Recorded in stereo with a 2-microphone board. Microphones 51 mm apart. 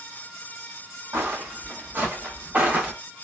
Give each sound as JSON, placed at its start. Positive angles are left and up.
{"t": 1.1, "sound": "footsteps", "side_deg": -45, "distance_m": 2.0}